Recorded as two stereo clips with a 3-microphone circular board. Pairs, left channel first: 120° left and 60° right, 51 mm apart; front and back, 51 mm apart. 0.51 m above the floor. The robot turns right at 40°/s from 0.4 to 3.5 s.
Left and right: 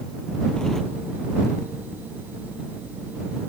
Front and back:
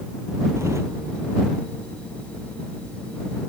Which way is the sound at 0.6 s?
165° right.